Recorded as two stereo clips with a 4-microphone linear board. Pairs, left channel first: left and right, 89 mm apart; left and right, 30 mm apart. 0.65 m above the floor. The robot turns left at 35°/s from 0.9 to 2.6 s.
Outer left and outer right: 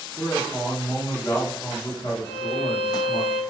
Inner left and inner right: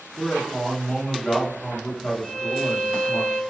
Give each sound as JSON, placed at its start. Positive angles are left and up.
{"t": 0.2, "sound": "a man speaking", "azimuth_deg": 155, "distance_m": 0.9}
{"t": 2.2, "sound": "a violin", "side_deg": 60, "distance_m": 1.7}